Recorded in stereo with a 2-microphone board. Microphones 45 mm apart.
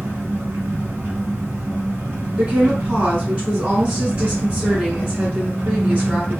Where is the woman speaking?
25° right (ahead or behind), 2.0 m.